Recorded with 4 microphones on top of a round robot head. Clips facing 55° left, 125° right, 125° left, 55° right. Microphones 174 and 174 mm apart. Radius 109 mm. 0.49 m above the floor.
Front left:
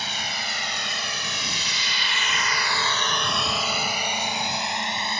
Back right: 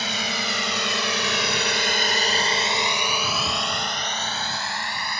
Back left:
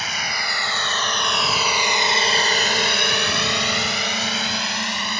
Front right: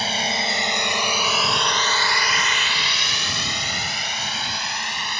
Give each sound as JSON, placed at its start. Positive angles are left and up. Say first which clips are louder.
{"t": 0.0, "sound": "a drone", "louder": "back right 5 dB, front right 5 dB", "azimuth_deg": -115}